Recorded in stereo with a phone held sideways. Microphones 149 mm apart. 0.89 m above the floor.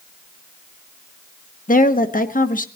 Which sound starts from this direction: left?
A woman speaking, at 1.7 s.